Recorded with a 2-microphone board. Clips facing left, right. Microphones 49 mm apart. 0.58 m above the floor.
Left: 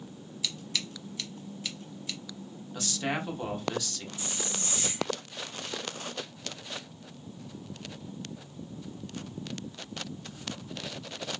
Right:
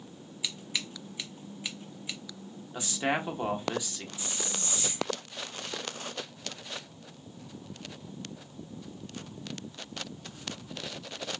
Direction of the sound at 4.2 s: 60° left (ahead or behind).